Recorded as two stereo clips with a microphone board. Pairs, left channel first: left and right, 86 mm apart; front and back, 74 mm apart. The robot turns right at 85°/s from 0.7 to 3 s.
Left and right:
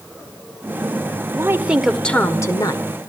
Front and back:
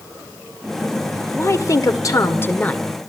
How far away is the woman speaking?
About 1.7 m.